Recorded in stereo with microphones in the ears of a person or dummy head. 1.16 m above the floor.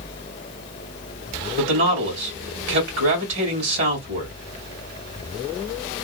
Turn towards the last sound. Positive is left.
turn(degrees=-70)  # may be behind; listen again after turning